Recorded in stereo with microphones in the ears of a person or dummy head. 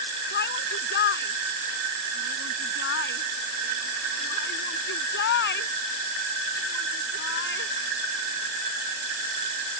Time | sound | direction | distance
0.3 | a shout | 55° left (ahead or behind) | ?